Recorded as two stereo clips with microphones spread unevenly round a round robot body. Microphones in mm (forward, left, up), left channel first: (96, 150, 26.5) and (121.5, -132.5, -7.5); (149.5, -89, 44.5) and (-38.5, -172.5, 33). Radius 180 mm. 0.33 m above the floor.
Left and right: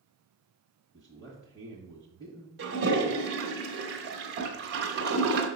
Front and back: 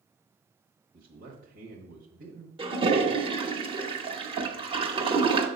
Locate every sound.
0.9 s a man speaking: straight behind, 1.3 m
2.6 s a toilet flushing: 105° right, 1.3 m